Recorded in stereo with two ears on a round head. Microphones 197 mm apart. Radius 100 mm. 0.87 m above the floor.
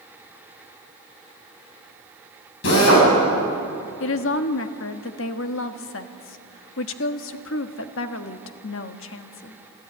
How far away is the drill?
About 7 m.